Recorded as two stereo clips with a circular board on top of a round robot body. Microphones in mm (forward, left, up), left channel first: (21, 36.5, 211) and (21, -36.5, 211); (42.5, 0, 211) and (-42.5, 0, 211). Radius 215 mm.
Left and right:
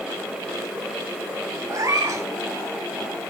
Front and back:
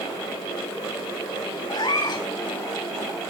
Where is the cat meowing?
40° right, 0.9 m.